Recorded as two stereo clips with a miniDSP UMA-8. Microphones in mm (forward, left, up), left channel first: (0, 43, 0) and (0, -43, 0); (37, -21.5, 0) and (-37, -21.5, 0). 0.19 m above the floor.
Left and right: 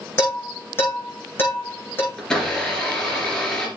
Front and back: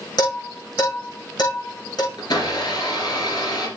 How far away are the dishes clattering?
About 7 m.